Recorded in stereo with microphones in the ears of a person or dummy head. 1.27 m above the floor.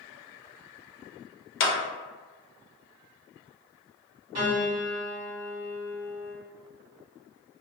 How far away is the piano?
About 1.7 m.